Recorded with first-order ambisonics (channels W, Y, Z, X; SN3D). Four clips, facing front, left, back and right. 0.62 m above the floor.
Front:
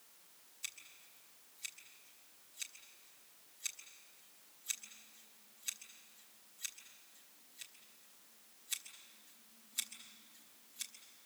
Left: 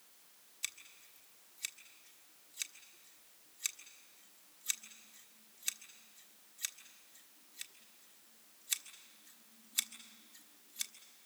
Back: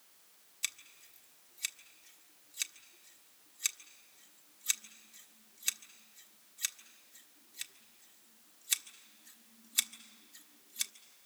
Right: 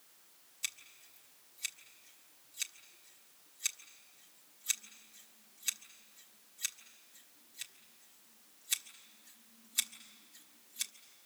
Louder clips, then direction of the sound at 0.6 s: Right 2 dB, back 8 dB; 175° left.